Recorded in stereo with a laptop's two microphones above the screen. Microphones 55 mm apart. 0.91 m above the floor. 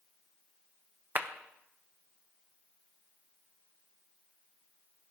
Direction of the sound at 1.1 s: 35° right (ahead or behind).